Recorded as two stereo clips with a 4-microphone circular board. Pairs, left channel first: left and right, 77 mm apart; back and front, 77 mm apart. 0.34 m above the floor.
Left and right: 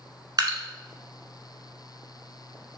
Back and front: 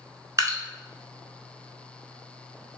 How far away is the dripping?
About 0.8 m.